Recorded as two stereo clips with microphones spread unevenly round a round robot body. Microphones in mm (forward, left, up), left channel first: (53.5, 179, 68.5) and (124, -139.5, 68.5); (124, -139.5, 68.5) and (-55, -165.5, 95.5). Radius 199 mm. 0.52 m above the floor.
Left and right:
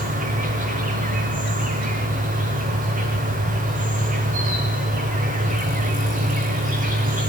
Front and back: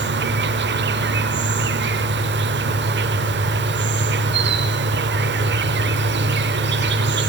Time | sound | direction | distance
0.0 | an insect | 150° right | 0.8 m